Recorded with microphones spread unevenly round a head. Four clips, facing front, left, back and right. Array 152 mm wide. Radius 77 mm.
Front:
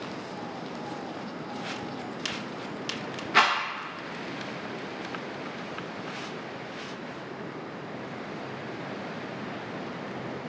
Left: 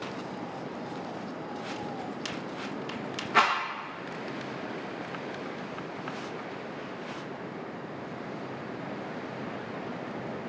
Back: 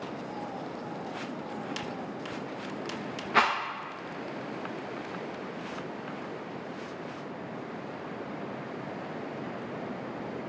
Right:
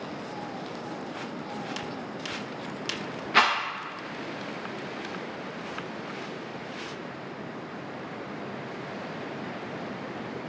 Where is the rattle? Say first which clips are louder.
Right 1 dB, front 2 dB; 170° left, 0.5 m.